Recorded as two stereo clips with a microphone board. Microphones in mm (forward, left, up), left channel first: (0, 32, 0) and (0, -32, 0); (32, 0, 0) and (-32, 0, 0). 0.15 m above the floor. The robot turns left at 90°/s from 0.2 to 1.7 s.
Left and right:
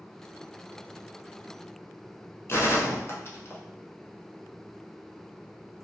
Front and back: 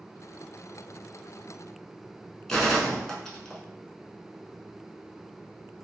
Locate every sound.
2.5 s a gunshot: 75° left, 0.6 m